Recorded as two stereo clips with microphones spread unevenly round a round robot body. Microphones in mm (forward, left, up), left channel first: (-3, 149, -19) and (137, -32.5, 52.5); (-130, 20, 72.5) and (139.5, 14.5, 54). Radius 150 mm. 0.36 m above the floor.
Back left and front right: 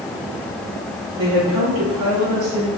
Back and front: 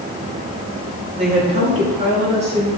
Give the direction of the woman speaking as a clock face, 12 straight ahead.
2 o'clock.